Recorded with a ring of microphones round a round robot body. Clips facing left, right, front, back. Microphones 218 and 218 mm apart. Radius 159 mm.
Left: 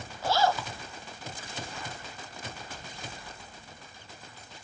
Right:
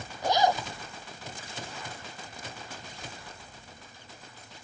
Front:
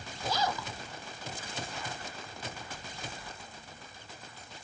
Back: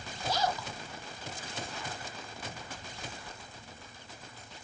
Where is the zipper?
15° right.